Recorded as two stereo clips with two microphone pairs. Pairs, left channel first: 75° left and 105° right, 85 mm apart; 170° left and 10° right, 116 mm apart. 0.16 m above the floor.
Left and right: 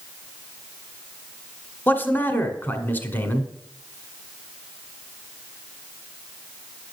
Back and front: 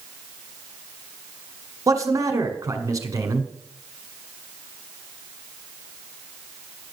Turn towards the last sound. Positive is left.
turn(degrees=25)